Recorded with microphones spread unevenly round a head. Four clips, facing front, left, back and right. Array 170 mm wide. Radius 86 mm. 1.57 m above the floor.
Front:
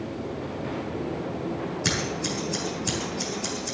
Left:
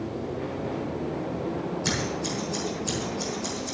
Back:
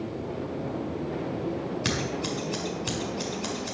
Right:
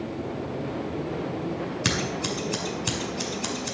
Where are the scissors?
95° right, 4.5 m.